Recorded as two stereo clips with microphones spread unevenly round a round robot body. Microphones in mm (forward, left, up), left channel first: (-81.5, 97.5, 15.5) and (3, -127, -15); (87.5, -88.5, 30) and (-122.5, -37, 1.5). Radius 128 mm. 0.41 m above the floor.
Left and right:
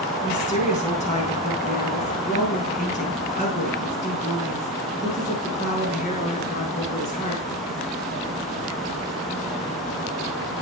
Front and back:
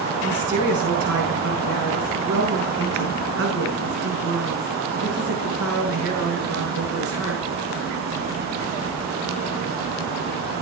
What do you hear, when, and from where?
0.2 s a woman speaking: 175° left, 7 m